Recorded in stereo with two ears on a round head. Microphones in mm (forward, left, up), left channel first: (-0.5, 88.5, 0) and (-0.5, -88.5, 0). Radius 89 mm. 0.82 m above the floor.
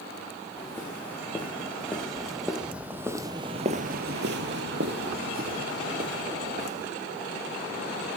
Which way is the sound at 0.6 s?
10° left (ahead or behind).